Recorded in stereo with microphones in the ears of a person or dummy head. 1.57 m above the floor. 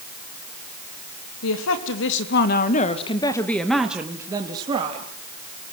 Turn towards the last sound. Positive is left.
turn(degrees=-30)  # may be behind; listen again after turning